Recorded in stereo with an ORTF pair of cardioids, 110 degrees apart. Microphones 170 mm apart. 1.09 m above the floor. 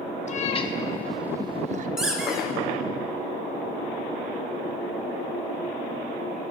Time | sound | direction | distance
0.3 | a cat meowing | 45° left | 1.1 m
2.0 | a squeak | 5° right | 1.9 m